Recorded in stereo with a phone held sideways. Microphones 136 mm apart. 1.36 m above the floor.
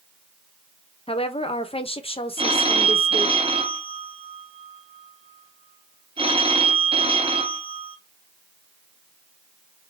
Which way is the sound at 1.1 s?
45° left (ahead or behind).